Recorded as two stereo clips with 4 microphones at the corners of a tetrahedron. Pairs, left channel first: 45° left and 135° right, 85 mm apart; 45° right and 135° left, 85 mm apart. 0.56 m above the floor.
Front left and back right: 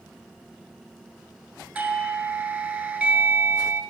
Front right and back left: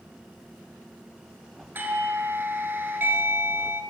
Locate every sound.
1.8 s a doorbell: 160° left, 1.7 m